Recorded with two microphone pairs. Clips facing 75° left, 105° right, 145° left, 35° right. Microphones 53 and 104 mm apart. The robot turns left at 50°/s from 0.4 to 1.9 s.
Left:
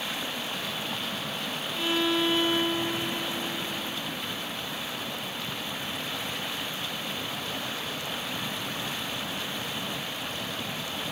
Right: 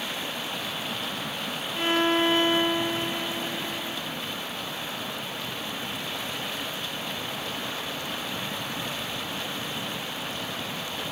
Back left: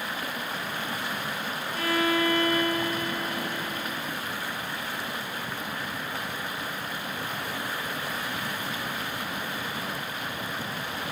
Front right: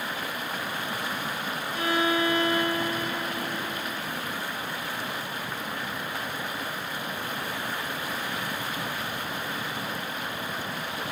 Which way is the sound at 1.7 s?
90° right.